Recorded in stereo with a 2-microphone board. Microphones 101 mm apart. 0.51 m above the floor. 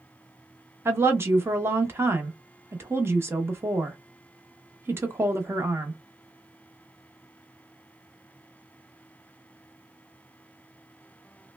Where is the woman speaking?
25° right (ahead or behind), 0.7 m.